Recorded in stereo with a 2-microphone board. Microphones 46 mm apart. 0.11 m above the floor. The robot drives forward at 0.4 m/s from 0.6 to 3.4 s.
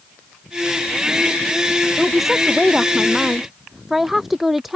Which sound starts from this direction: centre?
A woman speaking, at 2.0 s.